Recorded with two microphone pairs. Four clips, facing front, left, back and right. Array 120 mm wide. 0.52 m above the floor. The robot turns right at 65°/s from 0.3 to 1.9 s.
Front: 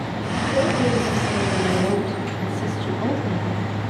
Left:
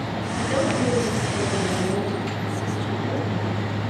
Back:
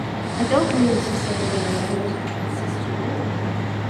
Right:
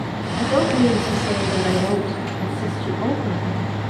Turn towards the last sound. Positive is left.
turn(degrees=-65)